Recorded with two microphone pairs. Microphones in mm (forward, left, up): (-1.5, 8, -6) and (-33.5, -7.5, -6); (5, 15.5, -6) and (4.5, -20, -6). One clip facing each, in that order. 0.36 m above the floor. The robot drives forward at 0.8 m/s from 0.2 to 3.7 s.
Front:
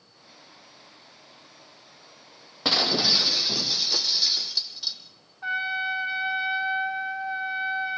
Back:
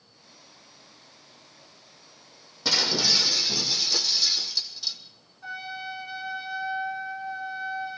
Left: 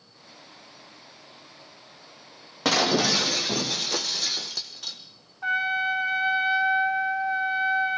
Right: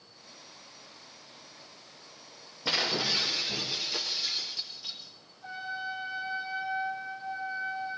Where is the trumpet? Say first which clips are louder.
Front 8 dB, left 12 dB; 80° left, 1.7 m.